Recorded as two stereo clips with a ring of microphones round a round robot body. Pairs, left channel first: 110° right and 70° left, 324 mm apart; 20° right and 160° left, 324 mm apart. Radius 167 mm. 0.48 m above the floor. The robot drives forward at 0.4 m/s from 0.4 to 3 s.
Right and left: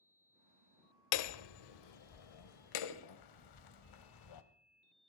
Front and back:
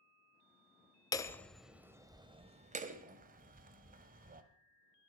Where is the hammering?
100° right, 0.9 m; by 4.4 s 135° right, 1.3 m.